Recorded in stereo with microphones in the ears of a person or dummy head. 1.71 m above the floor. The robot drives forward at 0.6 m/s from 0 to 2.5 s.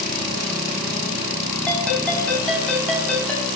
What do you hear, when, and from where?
1.7 s a ringtone: 5° left (ahead or behind), 9.5 m